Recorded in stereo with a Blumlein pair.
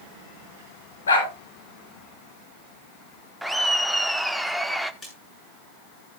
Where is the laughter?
Straight ahead, 1.2 m.